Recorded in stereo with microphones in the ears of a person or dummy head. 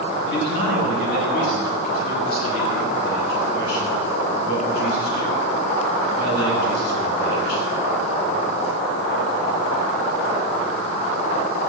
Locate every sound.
0.2 s a man speaking: 60° left (ahead or behind), 9 m